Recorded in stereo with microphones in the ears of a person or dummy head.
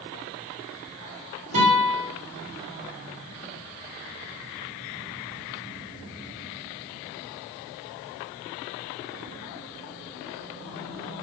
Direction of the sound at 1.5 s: 75° right (ahead or behind).